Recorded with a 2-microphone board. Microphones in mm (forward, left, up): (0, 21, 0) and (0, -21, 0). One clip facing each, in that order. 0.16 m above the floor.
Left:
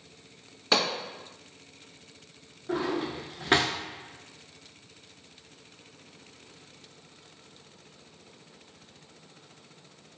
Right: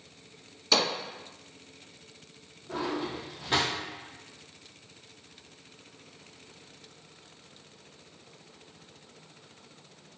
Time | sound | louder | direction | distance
0.7 | a pop | left 1 dB | 35° left (ahead or behind) | 1.7 m
2.7 | a drawer | left 3 dB | 65° left (ahead or behind) | 0.6 m